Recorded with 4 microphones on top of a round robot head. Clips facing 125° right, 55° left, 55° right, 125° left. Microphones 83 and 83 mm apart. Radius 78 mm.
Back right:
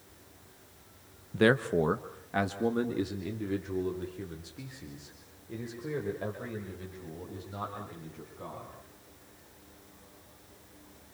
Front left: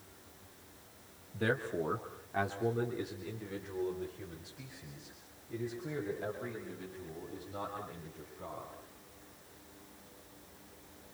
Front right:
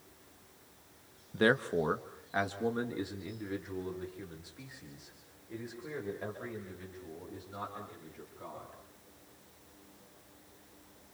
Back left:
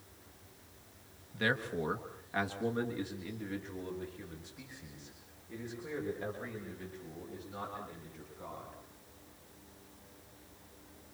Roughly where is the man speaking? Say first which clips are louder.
Back right 9 dB, front right 6 dB; right.